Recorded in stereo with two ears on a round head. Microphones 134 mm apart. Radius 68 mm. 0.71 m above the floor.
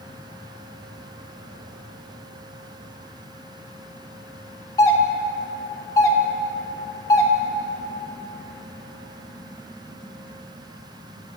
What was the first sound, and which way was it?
A doorbell, 20° left (ahead or behind).